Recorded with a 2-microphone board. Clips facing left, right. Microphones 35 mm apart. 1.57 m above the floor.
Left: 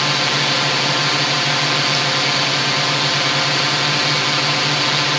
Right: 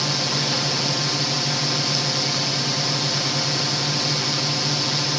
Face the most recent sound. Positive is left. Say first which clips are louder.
# left 7 dB
turn(degrees=55)  # may be behind; listen again after turning